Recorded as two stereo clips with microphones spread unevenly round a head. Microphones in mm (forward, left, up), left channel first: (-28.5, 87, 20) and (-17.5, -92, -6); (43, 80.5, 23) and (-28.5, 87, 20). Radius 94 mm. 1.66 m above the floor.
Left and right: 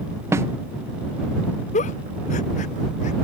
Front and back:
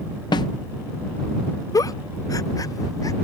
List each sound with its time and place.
0.3 s a snare drum: 5° right
1.7 s a giggle: 35° left